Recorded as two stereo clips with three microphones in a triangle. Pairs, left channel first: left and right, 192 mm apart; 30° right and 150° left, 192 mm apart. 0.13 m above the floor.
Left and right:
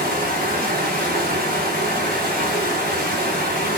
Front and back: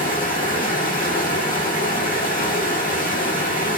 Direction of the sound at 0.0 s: 65° right.